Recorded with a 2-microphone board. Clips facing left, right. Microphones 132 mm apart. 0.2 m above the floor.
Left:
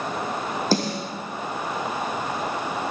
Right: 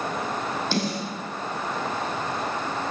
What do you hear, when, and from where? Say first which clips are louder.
0.7 s a snare drum: left 5 dB; 40° left (ahead or behind), 4.5 m